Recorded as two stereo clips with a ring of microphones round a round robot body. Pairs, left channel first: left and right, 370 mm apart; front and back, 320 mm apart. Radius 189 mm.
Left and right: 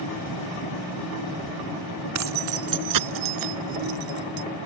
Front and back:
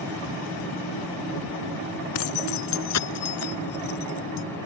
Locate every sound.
2.1 s keys jangling: 45° right; by 4.5 s 60° right